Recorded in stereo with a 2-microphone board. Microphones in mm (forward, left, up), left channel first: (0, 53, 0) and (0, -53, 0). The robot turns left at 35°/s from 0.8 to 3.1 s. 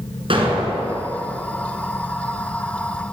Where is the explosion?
60° right (ahead or behind), 3 m; by 1.1 s 55° right (ahead or behind), 3 m.